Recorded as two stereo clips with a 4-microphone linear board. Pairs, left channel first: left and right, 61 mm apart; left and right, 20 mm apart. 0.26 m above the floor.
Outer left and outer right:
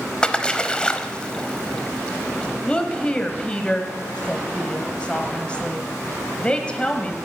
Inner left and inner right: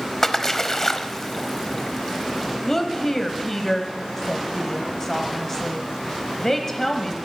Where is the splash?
20° left (ahead or behind), 0.8 m.